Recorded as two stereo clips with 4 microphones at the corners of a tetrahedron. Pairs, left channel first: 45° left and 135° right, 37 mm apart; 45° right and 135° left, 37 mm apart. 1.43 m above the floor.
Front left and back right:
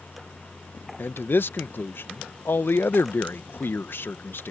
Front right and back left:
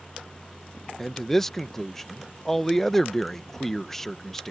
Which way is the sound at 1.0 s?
35° left.